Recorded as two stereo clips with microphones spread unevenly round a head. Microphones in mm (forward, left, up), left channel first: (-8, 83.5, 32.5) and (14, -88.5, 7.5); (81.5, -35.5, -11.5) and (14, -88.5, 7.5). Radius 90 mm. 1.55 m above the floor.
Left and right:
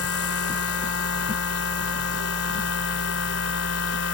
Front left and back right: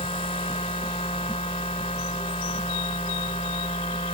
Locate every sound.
0.0 s a machine running: 100° left